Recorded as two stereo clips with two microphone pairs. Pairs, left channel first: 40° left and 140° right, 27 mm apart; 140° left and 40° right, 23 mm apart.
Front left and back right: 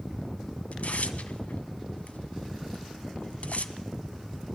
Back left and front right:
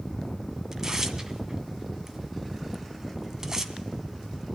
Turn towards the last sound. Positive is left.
turn(degrees=25)